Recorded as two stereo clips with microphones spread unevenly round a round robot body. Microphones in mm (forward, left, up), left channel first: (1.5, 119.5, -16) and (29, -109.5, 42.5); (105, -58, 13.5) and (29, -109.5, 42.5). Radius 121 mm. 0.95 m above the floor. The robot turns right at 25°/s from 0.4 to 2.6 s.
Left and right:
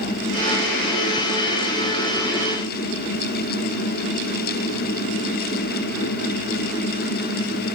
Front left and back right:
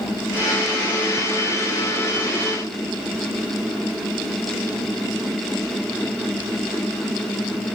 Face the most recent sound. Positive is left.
No sound to turn to.